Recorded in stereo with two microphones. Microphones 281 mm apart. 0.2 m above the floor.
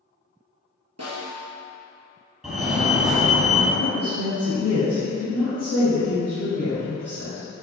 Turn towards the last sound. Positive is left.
turn(degrees=60)  # may be behind; listen again after turning